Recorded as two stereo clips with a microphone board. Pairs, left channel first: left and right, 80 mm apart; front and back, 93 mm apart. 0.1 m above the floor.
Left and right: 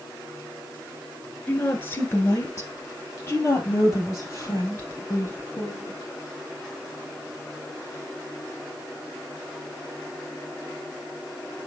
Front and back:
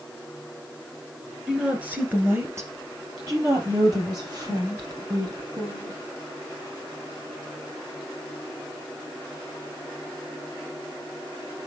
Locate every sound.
1.5 s a woman speaking: 110° left, 1.2 m; by 6.0 s 140° left, 4 m